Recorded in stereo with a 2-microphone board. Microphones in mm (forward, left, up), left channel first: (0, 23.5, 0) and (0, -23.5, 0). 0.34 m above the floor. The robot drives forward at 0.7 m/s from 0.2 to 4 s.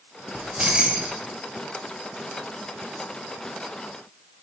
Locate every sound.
0.3 s keys jangling: 25° right (ahead or behind), 0.5 m; by 1.2 s 15° right (ahead or behind), 0.9 m